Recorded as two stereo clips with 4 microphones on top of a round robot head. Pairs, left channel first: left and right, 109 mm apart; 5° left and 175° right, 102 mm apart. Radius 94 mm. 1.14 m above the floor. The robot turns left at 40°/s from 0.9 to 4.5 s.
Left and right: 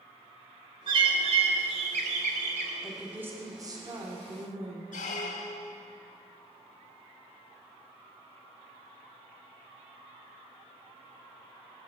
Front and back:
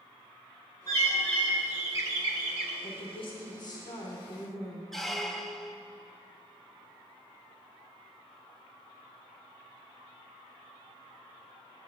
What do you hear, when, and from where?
0.9 s a bird: 60° right, 0.6 m; by 2.7 s 135° right, 0.6 m
2.8 s a woman speaking: 5° right, 1.3 m; by 4.8 s 70° right, 1.3 m
4.9 s a squeak: 95° left, 0.6 m